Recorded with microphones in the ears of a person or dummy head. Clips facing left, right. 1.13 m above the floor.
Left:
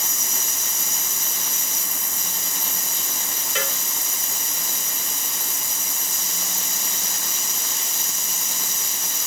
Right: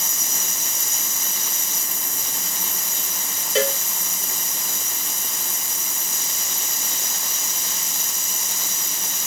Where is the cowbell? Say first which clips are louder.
Right 10 dB; 30° right (ahead or behind).